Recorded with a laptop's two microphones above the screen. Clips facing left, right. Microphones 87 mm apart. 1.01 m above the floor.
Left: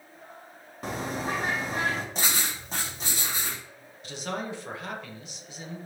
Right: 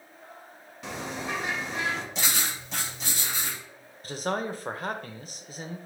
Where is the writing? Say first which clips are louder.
Even; 40° left (ahead or behind), 1.6 m.